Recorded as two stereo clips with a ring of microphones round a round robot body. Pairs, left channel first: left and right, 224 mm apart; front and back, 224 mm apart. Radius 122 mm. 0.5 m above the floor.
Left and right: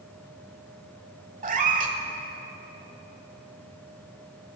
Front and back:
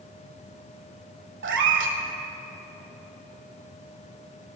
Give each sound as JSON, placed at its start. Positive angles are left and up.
{"t": 1.4, "sound": "a cat meowing", "azimuth_deg": -145, "distance_m": 1.4}